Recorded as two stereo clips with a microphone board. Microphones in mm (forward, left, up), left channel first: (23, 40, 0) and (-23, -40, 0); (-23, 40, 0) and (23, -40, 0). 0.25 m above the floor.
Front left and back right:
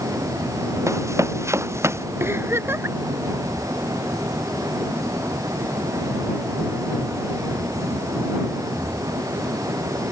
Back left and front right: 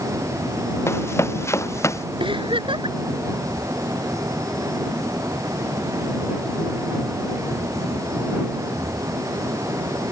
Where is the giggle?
60° right.